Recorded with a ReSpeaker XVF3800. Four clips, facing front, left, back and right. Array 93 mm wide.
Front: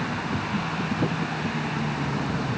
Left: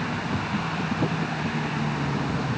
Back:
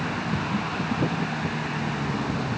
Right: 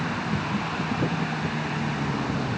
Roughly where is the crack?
I don't hear a crack.